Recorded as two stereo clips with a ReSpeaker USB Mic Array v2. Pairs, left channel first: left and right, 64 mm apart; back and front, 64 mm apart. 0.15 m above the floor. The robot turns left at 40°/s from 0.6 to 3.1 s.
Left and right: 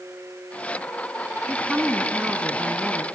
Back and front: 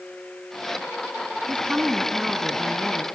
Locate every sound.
1.5 s a woman speaking: 25° right, 1.2 m; by 3.1 s 90° right, 1.2 m